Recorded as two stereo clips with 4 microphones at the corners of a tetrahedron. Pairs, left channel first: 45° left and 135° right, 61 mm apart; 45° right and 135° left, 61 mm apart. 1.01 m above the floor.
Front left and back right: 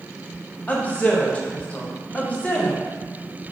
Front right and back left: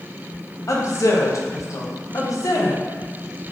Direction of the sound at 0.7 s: 20° right.